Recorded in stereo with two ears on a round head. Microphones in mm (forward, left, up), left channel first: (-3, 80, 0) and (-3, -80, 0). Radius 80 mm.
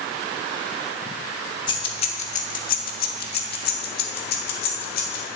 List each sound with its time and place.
1.7 s keys jangling: 25° left (ahead or behind), 0.9 m; by 5.2 s 55° left (ahead or behind), 1.7 m